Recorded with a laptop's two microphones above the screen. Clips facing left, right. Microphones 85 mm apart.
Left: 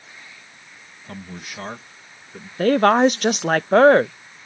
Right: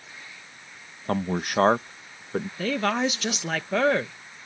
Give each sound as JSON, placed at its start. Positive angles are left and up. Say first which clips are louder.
{"t": 1.1, "sound": "a man speaking", "louder": "right 10 dB", "side_deg": -60}
{"t": 2.6, "sound": "a woman speaking", "louder": "left 11 dB", "side_deg": 50}